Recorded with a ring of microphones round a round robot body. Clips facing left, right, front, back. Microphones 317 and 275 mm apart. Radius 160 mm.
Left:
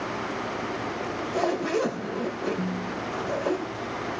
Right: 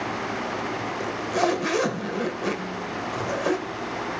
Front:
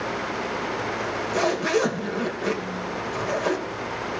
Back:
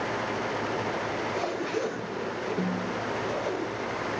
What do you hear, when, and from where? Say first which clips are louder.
1.0 s a zipper: right 3 dB, front 5 dB; 40° right, 3 m
2.6 s a snare drum: left 2 dB, back 1 dB; 145° left, 5 m